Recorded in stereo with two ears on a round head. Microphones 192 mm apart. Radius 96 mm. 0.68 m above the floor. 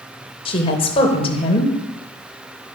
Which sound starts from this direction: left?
A woman speaking, at 0.5 s.